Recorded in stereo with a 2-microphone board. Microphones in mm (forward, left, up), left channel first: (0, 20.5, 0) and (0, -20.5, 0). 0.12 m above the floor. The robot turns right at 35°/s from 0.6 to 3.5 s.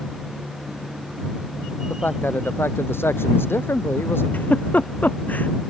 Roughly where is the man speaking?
Ahead left.